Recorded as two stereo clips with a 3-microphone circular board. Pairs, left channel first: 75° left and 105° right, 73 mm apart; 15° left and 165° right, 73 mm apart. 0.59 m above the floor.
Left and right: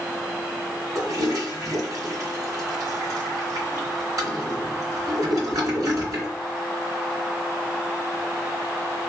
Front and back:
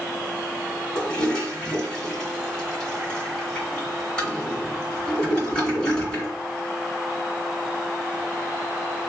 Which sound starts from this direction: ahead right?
A toilet flushing, at 0.9 s.